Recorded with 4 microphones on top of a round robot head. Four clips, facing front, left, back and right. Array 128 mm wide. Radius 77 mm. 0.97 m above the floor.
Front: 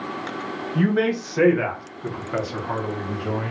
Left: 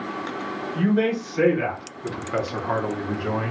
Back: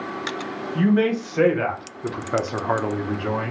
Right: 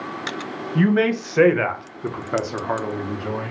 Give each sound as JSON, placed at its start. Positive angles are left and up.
{"t": 0.8, "sound": "a man speaking", "azimuth_deg": -80, "distance_m": 1.6}